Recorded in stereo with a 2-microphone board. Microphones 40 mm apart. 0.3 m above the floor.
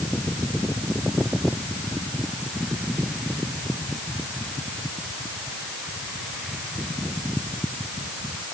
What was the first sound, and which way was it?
Only background noise.